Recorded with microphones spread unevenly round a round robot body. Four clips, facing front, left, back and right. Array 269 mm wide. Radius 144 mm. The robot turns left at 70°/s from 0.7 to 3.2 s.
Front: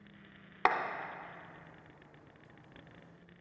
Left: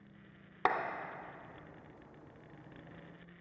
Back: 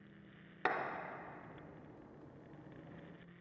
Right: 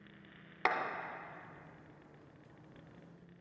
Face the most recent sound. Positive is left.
turn(degrees=-150)